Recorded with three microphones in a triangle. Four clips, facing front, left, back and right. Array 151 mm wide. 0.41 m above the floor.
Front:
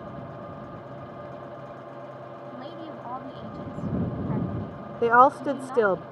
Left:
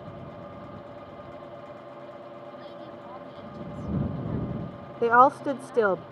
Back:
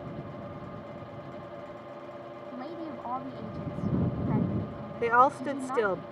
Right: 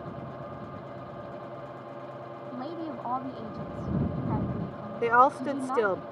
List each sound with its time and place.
2.5 s a woman speaking: 95° right
5.0 s a woman speaking: 30° left